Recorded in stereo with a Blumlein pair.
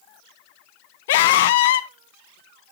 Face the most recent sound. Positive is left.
turn(degrees=55)